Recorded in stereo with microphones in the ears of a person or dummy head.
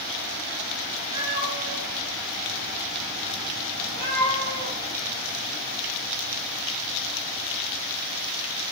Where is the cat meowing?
25° right (ahead or behind), 2.5 m; by 4.8 s 60° right (ahead or behind), 5.5 m.